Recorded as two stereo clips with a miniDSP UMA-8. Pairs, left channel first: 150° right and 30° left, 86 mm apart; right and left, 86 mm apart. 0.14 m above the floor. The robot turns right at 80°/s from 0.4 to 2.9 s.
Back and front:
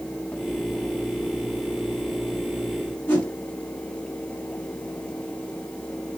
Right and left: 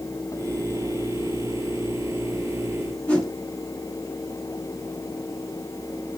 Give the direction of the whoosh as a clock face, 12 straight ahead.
5 o'clock.